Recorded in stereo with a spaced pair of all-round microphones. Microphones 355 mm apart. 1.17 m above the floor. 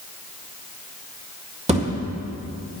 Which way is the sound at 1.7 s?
20° right (ahead or behind).